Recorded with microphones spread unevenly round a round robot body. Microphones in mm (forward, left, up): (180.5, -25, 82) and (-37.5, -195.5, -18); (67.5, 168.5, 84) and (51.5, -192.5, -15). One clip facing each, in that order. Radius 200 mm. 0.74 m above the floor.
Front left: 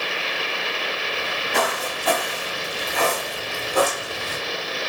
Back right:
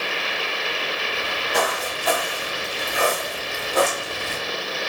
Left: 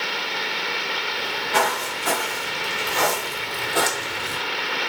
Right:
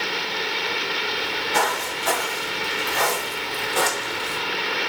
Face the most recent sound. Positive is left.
turn(degrees=130)